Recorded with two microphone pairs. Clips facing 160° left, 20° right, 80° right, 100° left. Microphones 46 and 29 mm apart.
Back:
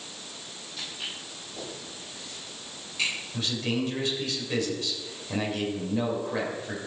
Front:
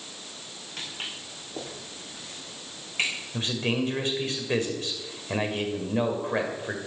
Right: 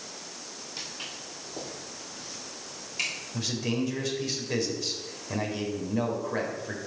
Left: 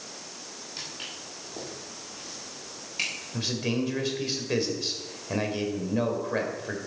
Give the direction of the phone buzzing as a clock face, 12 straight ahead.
No phone buzzing in this recording.